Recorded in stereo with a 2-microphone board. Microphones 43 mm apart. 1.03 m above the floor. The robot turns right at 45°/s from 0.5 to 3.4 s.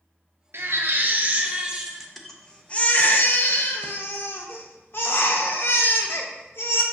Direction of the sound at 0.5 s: 70° right.